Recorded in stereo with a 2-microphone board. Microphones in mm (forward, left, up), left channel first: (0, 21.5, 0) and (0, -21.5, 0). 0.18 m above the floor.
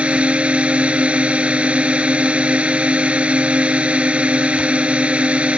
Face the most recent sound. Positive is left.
turn(degrees=-30)  # may be behind; listen again after turning